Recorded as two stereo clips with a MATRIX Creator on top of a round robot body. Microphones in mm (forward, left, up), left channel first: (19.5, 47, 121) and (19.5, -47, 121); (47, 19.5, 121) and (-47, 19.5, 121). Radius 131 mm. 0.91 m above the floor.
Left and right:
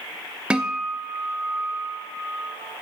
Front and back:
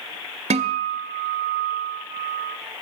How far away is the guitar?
About 0.5 m.